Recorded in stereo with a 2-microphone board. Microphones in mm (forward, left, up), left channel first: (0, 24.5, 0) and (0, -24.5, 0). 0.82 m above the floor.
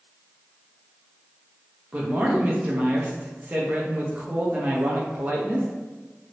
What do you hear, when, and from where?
1.9 s a man speaking: 30° right (ahead or behind), 0.6 m